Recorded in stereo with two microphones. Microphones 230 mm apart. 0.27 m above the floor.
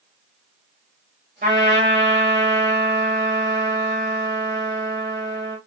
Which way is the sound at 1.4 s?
35° right (ahead or behind).